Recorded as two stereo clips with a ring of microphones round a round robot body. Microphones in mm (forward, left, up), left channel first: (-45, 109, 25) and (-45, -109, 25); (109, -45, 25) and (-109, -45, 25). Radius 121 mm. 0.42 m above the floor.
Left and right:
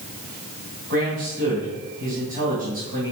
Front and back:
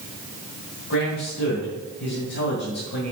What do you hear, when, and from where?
0.9 s a man speaking: 35° right, 2.5 m